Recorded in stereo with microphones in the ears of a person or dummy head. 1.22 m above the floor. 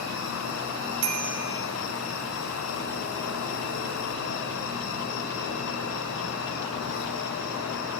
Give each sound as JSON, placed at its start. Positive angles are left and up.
{"t": 0.0, "sound": "an insect", "side_deg": 85, "distance_m": 6.5}
{"t": 1.0, "sound": "a bicycle bell", "side_deg": -80, "distance_m": 6.0}